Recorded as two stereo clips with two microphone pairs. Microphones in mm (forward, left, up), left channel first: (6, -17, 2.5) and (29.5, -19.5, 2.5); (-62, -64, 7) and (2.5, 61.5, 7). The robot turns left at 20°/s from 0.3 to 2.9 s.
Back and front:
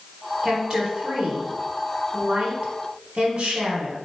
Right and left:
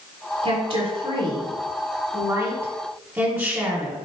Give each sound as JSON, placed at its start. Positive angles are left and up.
{"t": 0.4, "sound": "a woman speaking", "azimuth_deg": 45, "distance_m": 1.3}